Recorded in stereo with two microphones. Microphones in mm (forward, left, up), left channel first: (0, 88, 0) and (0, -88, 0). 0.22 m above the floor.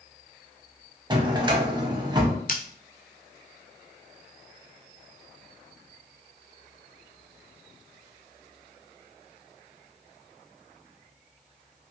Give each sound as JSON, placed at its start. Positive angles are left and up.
{"t": 1.1, "sound": "a drawer", "side_deg": -25, "distance_m": 0.6}
{"t": 2.5, "sound": "scissors", "side_deg": 50, "distance_m": 0.6}